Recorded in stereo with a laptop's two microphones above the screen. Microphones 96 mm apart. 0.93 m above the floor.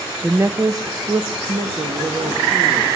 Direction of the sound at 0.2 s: 15° right (ahead or behind).